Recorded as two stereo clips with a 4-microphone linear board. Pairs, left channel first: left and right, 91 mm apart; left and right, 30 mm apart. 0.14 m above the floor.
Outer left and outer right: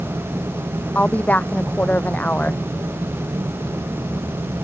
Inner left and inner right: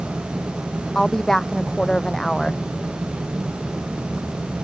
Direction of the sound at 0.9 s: 20° left (ahead or behind).